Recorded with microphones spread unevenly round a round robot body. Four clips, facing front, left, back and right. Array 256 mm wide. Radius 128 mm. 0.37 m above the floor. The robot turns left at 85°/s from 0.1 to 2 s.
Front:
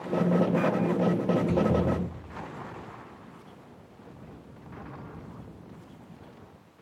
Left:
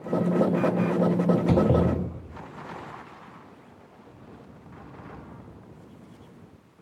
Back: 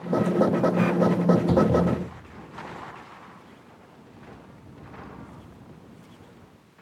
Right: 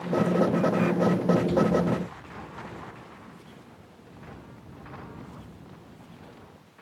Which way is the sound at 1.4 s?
130° left.